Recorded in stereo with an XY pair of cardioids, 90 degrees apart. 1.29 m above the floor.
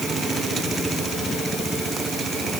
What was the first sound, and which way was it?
Only background noise.